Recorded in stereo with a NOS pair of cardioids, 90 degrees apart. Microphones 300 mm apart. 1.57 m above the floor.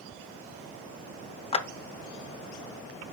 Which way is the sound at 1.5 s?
20° left.